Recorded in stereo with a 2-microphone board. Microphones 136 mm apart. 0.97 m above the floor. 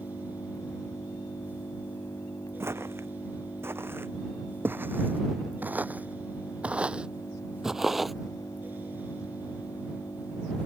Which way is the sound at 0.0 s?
25° left (ahead or behind).